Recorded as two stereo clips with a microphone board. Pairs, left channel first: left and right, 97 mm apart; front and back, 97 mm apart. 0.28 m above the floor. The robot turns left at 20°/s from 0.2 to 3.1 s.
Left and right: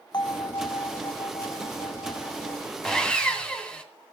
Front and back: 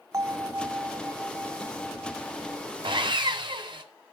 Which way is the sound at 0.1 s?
125° left.